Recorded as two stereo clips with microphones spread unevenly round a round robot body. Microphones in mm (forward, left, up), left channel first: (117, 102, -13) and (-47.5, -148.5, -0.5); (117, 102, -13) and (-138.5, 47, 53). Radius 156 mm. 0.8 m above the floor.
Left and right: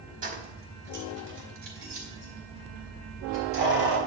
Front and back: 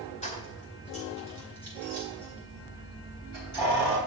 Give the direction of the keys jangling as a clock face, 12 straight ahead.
2 o'clock.